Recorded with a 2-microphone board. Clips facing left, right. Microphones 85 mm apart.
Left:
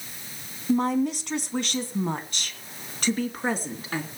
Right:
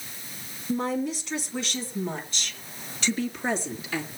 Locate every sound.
0.7 s a woman speaking: 60° left (ahead or behind), 2.5 m; by 4.1 s 45° left (ahead or behind), 3.5 m